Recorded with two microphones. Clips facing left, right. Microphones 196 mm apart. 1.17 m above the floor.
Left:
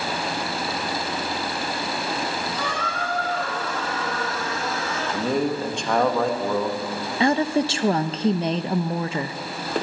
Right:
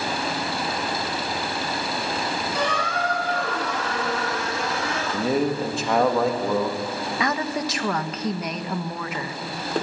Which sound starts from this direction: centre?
A man speaking, at 5.1 s.